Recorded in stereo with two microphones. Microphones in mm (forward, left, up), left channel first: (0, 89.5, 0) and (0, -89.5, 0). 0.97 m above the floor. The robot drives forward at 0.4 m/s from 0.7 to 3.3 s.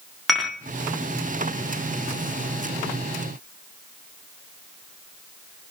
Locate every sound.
0.3 s dishes clattering: centre (ahead or behind), 1.3 m